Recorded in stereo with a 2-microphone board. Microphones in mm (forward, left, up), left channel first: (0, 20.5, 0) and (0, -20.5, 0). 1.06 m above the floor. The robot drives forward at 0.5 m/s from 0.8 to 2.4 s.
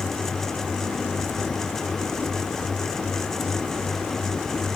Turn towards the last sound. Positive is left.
No sound to turn to.